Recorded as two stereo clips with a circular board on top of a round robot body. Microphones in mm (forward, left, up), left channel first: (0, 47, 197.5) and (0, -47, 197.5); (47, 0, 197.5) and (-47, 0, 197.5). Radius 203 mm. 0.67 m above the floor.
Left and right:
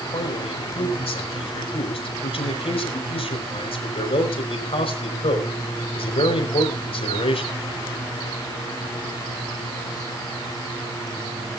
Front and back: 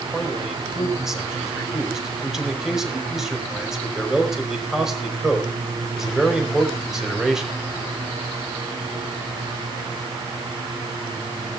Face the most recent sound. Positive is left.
turn(degrees=95)